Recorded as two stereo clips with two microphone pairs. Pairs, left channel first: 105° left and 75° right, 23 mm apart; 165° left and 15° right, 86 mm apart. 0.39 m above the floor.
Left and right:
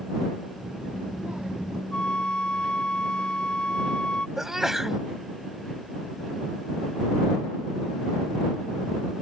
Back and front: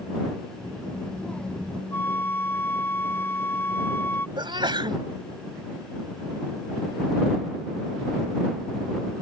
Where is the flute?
110° left.